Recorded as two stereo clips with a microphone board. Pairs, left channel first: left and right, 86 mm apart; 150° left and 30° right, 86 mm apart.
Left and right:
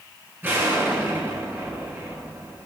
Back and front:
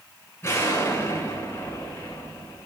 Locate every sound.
0.4 s an explosion: 155° right, 4 m